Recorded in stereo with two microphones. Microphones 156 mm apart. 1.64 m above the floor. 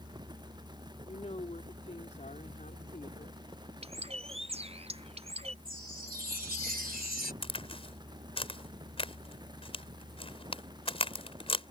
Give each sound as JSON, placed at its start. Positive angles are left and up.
{"t": 1.1, "sound": "a woman speaking", "side_deg": 40}
{"t": 3.8, "sound": "a bird", "side_deg": -40}
{"t": 5.7, "sound": "a chime", "side_deg": -75}
{"t": 7.4, "sound": "a crack", "side_deg": 35}